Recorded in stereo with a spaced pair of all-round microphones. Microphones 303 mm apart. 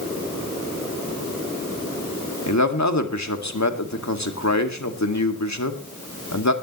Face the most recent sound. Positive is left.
turn(degrees=65)  # may be behind; listen again after turning